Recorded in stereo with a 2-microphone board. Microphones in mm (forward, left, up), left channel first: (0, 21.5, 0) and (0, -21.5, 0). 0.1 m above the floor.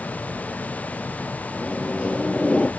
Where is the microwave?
25° left (ahead or behind), 2 m.